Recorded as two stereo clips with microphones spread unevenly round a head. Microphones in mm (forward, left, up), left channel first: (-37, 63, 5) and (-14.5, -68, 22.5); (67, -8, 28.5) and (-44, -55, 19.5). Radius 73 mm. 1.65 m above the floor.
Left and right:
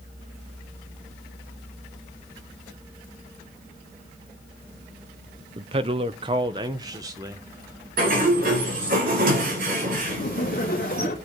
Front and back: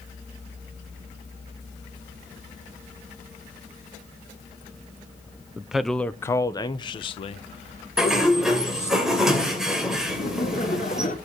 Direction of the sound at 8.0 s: 70° right.